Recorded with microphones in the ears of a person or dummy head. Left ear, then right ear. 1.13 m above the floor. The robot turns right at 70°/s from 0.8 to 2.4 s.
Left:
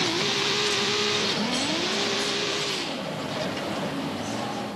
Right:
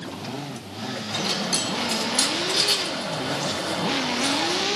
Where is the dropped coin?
165° right, 2 m; by 4.7 s 75° right, 2 m.